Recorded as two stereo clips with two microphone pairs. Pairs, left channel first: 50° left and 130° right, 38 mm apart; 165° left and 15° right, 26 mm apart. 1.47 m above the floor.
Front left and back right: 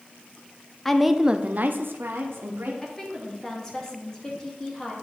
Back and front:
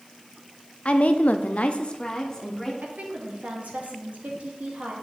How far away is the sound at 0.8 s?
About 0.6 m.